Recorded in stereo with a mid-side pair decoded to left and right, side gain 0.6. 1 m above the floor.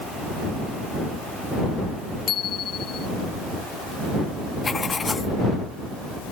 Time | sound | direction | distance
2.3 | a bicycle bell | 45° left | ?
4.6 | writing | 25° left | ?